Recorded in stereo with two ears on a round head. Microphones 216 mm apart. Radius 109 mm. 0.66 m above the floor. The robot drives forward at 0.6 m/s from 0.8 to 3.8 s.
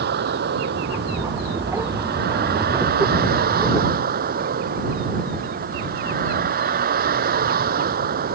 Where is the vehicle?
45° right (ahead or behind); by 8.3 s 40° right (ahead or behind).